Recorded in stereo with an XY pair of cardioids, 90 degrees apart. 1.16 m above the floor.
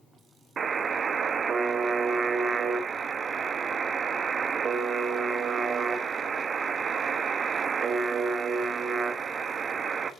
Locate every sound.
0.6 s a buzzer: 55° right, 1.1 m